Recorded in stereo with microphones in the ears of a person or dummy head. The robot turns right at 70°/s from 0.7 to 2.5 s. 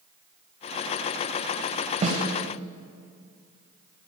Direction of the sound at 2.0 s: 35° right (ahead or behind).